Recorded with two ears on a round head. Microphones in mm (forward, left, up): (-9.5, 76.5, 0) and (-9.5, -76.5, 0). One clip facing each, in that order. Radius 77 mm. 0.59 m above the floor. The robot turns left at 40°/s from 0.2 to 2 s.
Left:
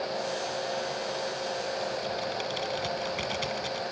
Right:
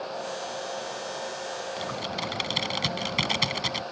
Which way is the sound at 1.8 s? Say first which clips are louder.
Left 1 dB; 75° right (ahead or behind).